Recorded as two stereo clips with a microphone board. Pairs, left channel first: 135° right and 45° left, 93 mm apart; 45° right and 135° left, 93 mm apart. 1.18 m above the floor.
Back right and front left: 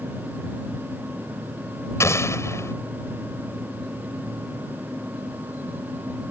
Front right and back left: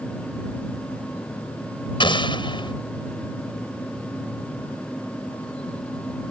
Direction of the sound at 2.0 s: 75° right.